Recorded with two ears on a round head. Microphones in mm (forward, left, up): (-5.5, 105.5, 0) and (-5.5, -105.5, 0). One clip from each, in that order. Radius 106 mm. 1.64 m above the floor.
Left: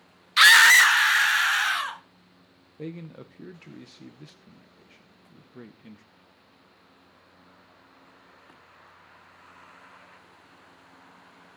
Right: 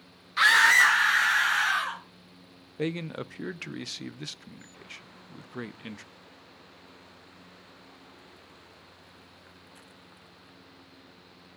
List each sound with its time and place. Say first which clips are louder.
0.4 s a scream: left 5 dB; 75° left (ahead or behind), 0.7 m
2.8 s a man speaking: right 7 dB; 50° right (ahead or behind), 0.7 m